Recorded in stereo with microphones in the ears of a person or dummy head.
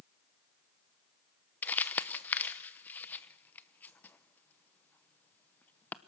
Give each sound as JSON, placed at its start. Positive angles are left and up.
{"t": 1.6, "sound": "crumpling", "side_deg": 10, "distance_m": 0.8}